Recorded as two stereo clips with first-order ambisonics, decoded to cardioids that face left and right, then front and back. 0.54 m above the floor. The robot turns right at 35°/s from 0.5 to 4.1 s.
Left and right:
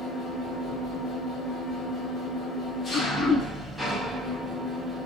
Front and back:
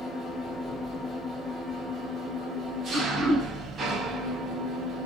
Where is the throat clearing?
85° left, 1.7 m; by 3.5 s 105° left, 1.7 m.